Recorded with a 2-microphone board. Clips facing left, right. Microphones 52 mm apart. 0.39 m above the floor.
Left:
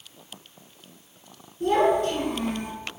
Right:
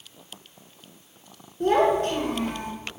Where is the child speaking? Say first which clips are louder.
Right 1 dB; 50° right (ahead or behind), 0.6 m.